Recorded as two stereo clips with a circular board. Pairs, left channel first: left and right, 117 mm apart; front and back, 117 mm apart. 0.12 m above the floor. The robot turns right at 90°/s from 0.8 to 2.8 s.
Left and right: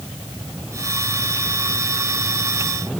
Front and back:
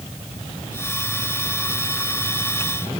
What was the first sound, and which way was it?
Only background noise.